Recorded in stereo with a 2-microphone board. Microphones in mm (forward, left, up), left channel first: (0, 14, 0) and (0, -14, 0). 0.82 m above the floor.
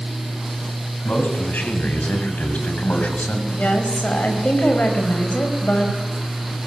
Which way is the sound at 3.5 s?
60° left (ahead or behind).